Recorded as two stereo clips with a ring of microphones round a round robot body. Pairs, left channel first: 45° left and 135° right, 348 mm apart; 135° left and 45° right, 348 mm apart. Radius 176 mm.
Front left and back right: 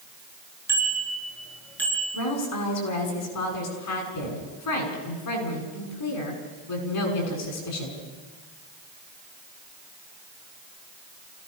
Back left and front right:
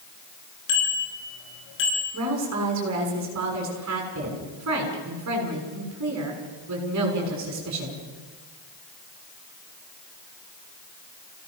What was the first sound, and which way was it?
A bicycle bell, 140° left.